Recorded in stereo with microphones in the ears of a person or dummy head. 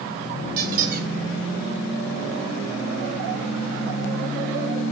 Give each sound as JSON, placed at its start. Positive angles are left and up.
{"t": 0.6, "sound": "a squeak", "side_deg": -55, "distance_m": 1.6}